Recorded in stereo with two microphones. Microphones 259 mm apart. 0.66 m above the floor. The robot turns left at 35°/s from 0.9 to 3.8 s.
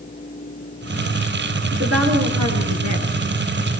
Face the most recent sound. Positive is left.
turn(degrees=-125)